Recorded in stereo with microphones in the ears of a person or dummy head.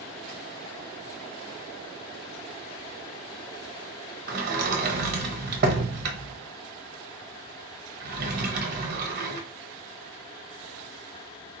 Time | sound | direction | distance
4.3 | a sliding door | 50° right (ahead or behind) | 0.9 m